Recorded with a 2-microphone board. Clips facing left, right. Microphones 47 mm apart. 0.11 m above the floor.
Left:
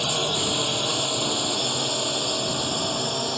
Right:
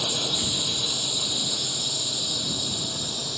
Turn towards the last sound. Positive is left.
turn(degrees=55)  # may be behind; listen again after turning